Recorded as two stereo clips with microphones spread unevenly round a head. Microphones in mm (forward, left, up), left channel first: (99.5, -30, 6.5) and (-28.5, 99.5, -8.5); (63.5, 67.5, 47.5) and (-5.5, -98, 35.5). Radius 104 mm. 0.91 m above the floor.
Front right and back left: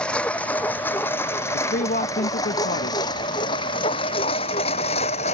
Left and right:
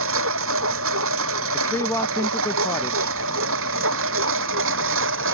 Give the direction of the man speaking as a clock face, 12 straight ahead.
12 o'clock.